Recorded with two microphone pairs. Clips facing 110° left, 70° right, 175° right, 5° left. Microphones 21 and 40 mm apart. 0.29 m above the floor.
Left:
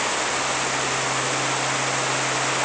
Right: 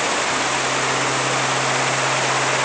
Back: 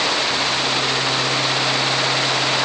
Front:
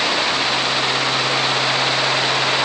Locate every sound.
Only background noise.